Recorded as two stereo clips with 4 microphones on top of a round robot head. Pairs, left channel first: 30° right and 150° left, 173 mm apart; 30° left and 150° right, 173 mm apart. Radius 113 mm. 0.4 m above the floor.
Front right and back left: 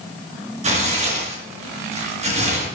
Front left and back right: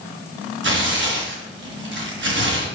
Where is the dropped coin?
I don't hear a dropped coin.